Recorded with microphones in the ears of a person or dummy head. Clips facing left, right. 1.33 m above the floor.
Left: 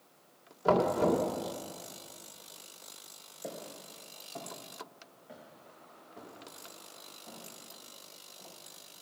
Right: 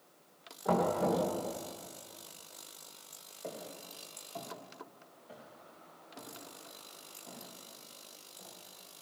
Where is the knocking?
85° left, 2.5 m.